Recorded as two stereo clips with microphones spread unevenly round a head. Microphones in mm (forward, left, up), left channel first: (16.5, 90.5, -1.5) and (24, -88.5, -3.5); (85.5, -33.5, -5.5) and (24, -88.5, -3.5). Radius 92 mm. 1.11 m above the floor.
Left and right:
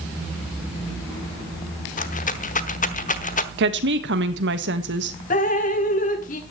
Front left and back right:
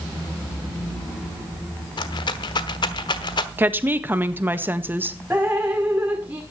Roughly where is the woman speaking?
Right.